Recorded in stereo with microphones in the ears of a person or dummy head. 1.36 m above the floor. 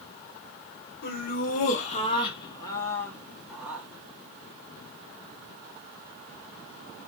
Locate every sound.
1.0 s laughter: 50° left (ahead or behind), 1.7 m; by 3.9 s 10° right (ahead or behind), 1.7 m